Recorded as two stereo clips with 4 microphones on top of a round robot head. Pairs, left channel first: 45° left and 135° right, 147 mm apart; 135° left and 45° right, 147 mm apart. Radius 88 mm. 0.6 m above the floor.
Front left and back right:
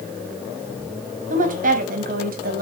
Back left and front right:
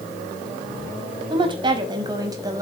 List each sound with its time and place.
1.3 s a woman speaking: 100° right, 5 m; by 2.6 s 115° right, 4.5 m